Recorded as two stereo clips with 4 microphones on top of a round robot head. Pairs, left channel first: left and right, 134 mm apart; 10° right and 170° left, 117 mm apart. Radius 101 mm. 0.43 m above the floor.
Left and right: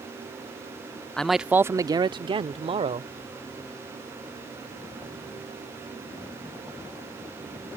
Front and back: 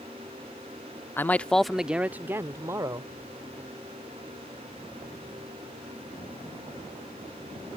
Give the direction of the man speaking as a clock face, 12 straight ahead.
11 o'clock.